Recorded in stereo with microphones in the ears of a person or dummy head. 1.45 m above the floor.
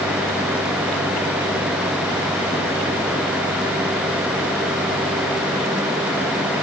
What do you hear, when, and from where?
Only background noise.